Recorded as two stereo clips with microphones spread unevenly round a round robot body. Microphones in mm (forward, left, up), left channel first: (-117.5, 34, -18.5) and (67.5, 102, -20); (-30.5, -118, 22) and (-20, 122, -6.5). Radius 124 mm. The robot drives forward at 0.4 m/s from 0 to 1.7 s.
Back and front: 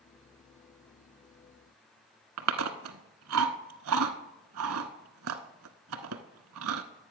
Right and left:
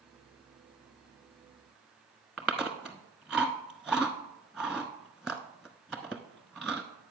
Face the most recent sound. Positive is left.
turn(degrees=-5)